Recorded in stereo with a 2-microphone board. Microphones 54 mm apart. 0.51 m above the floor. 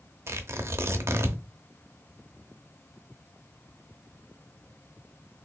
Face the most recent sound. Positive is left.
turn(degrees=-55)  # may be behind; listen again after turning